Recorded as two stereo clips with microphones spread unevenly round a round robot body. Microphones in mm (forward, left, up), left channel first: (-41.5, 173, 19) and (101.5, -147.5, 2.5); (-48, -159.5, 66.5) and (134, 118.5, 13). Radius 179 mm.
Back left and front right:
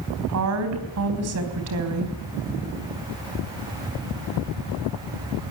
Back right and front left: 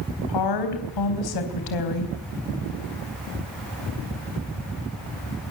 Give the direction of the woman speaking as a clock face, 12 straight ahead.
4 o'clock.